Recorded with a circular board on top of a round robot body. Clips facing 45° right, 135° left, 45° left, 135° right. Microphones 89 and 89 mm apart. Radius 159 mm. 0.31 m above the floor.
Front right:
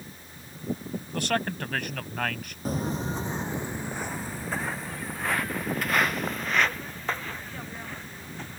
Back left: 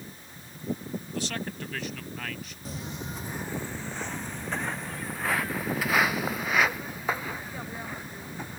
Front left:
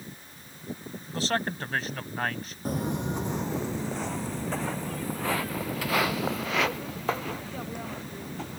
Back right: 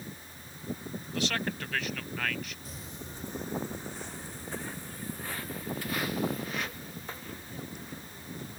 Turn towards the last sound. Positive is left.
turn(degrees=55)